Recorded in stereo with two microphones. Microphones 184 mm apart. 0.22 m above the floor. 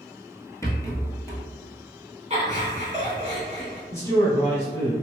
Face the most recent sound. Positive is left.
turn(degrees=15)  # may be behind; listen again after turning